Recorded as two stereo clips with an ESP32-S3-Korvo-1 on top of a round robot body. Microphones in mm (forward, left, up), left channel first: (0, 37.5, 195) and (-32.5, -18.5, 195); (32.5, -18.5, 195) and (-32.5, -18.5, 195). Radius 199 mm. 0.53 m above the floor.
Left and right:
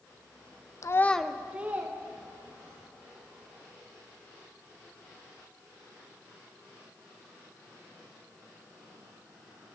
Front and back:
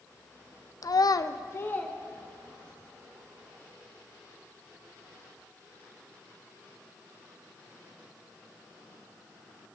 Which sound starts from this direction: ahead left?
A child speaking, at 0.8 s.